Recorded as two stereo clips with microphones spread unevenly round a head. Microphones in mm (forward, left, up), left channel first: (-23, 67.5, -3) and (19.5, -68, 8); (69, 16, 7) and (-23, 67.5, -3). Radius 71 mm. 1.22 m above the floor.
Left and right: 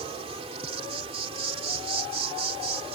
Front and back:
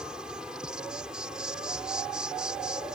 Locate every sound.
0.0 s an insect: 125° right